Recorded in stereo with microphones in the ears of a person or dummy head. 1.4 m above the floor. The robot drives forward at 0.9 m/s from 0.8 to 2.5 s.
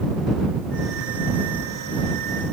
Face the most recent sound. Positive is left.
No sound to turn to.